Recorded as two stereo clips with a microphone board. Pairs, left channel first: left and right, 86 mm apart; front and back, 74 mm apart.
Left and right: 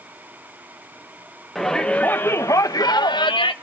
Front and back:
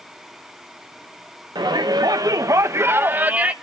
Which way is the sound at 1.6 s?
Straight behind.